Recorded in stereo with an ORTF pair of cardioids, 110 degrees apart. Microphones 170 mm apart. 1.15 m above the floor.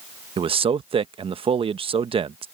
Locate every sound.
0.4 s a man speaking: 30° right